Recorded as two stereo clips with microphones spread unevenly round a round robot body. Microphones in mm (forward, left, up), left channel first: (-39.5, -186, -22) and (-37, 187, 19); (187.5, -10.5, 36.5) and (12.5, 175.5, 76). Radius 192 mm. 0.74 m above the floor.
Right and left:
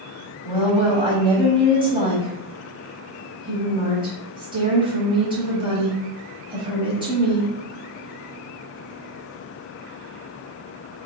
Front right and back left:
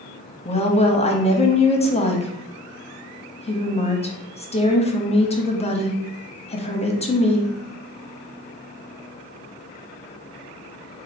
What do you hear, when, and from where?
0.5 s a woman speaking: 10° left, 0.9 m